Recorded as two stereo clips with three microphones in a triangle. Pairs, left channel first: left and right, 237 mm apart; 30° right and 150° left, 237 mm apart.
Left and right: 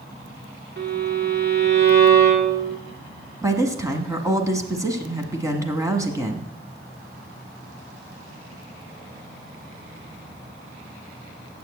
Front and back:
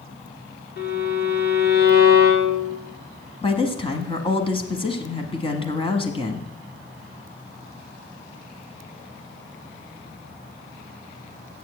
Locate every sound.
0.8 s a violin: 60° right, 1.9 m
3.4 s a woman speaking: 35° right, 1.2 m